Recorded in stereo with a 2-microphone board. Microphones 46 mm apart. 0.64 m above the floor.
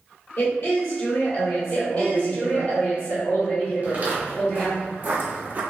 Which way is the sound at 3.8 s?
35° right (ahead or behind).